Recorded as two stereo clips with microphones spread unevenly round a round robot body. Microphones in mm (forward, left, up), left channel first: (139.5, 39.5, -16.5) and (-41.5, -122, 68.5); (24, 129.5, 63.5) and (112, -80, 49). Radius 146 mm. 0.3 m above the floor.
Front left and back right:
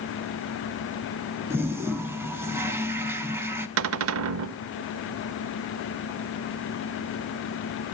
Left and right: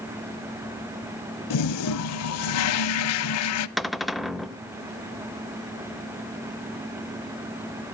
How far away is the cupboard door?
About 0.6 m.